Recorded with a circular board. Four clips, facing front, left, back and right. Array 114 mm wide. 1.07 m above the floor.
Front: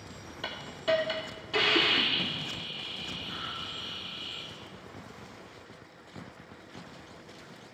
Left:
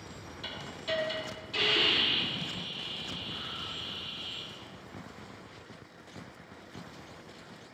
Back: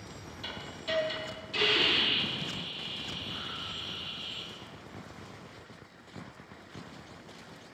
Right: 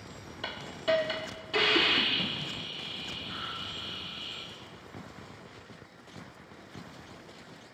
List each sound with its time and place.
0.4 s a hiss: 45° right, 3 m